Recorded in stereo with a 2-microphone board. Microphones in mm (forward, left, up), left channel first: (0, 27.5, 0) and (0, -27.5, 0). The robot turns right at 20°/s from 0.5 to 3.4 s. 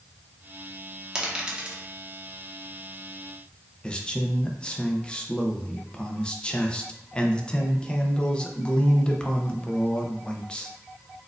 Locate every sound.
1.1 s a dropped coin: 15° right (ahead or behind), 0.7 m; by 1.8 s 20° right (ahead or behind), 0.7 m
3.8 s a man speaking: 15° left (ahead or behind), 0.5 m